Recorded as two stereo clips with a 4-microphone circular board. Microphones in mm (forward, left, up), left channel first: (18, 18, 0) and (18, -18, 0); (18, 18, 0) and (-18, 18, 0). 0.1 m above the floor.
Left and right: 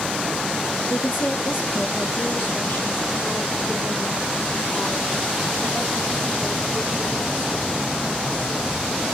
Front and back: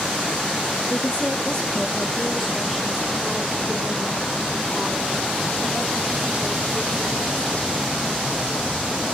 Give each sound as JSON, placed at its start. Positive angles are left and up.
{"t": 0.9, "sound": "a woman speaking", "azimuth_deg": 60, "distance_m": 3.0}